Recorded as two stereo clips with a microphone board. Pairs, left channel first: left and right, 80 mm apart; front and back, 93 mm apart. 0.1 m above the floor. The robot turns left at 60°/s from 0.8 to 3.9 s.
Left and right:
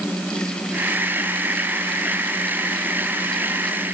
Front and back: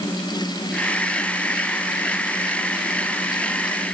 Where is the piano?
I don't hear a piano.